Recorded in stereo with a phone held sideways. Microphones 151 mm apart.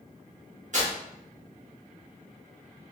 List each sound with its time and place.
0.7 s tearing paper: 55° right (ahead or behind), 1.3 m